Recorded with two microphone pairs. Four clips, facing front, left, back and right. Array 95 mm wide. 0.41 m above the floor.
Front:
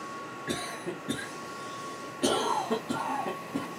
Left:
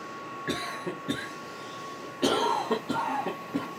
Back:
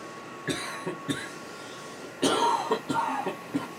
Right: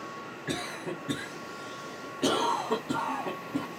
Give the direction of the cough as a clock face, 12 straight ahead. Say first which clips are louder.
Left 1 dB, back 3 dB; 7 o'clock.